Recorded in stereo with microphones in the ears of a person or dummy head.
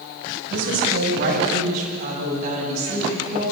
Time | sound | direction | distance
0.5 | a woman speaking | 60° right (ahead or behind) | 6 m